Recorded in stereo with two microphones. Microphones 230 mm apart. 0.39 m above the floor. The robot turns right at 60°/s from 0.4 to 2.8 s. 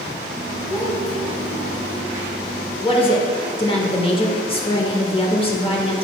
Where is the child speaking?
25° right, 2 m; by 2.0 s 55° left, 2 m.